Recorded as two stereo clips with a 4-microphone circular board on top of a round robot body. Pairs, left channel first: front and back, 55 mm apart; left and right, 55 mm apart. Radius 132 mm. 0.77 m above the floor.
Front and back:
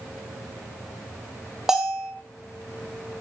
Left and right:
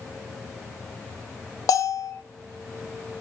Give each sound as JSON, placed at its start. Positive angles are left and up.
{"t": 1.7, "sound": "a bell", "azimuth_deg": 95, "distance_m": 1.3}